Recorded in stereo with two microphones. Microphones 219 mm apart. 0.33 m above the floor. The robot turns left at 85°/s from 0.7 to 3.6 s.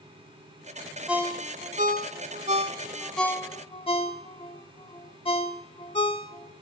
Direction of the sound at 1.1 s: 5° right (ahead or behind).